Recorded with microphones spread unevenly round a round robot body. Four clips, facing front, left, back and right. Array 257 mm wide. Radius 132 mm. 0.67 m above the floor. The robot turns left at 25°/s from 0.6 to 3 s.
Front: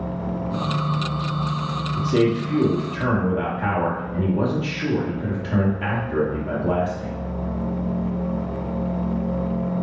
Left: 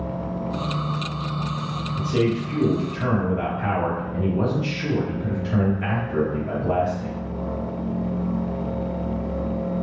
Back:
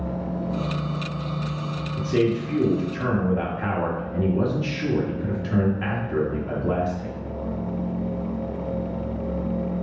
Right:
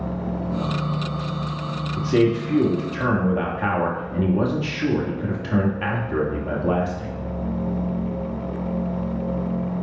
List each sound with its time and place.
2.0 s a man speaking: 75° right, 1.4 m; by 7.1 s 100° right, 1.4 m